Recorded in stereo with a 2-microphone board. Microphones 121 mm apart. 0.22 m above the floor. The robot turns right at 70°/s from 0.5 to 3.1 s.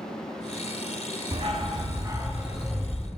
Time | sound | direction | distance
1.3 | a dog barking | 90° right | 0.6 m